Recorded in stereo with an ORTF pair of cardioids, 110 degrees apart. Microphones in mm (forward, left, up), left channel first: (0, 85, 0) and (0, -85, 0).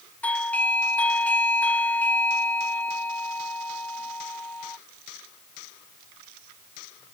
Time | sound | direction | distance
0.2 | a doorbell | 10° left | ?